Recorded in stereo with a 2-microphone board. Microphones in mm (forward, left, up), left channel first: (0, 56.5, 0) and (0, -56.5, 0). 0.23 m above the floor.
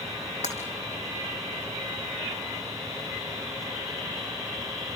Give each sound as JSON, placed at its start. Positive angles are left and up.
{"t": 0.4, "sound": "breaking glass", "side_deg": 85, "distance_m": 5.5}